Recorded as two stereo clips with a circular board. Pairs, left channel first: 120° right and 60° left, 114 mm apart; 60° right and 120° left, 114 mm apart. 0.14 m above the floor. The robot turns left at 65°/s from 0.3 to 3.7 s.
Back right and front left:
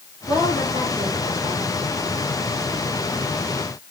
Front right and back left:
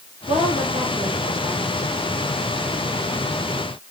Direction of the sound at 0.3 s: 140° left.